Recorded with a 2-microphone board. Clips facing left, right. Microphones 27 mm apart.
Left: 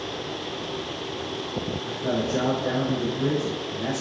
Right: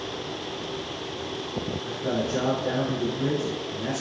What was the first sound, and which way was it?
A man speaking, 5° right (ahead or behind).